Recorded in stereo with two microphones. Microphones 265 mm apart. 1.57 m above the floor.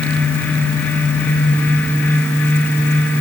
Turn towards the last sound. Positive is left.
No sound to turn to.